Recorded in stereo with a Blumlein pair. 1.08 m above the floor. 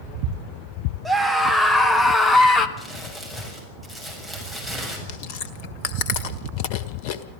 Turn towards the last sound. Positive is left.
turn(degrees=45)